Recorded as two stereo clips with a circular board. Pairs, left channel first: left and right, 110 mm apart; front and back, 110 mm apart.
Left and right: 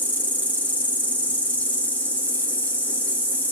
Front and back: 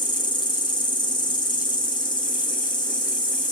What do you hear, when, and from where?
0.0 s an insect: 20° left, 1.2 m